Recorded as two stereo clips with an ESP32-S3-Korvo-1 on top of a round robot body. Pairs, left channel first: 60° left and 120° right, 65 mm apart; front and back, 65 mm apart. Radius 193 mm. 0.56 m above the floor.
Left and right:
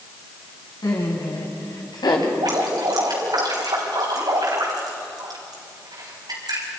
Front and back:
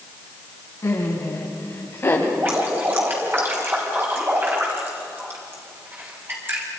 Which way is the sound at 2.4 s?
125° right.